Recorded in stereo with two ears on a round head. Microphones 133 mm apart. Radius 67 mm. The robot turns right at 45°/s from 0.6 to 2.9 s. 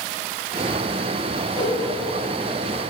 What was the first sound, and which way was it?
A whoosh, 35° left (ahead or behind).